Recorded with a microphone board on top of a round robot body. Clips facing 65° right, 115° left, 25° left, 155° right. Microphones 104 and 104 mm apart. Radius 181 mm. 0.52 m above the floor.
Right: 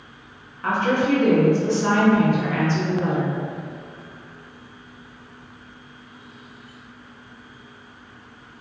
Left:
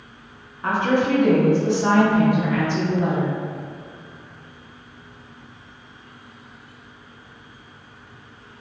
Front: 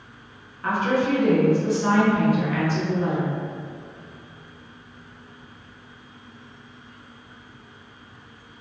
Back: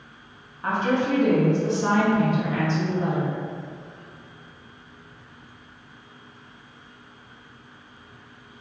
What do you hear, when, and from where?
0.6 s a woman speaking: 170° left, 1.2 m